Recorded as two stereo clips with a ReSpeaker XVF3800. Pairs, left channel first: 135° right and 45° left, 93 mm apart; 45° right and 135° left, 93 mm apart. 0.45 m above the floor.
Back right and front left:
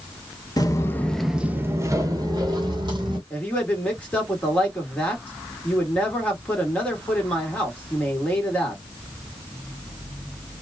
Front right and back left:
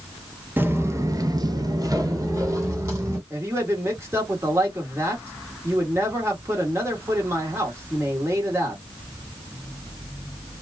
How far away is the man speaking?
About 1.4 m.